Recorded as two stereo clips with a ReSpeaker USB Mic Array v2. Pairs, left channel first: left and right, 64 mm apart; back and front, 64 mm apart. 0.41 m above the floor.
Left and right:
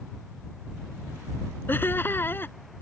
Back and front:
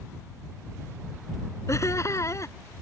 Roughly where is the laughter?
Behind left.